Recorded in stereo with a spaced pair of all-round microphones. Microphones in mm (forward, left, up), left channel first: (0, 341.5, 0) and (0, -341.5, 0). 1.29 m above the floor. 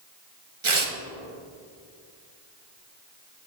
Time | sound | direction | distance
0.6 | tearing paper | 45° right (ahead or behind) | 1.2 m